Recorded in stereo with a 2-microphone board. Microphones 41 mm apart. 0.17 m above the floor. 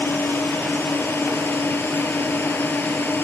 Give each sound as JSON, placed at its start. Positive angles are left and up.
{"t": 0.0, "sound": "a drone", "side_deg": 65}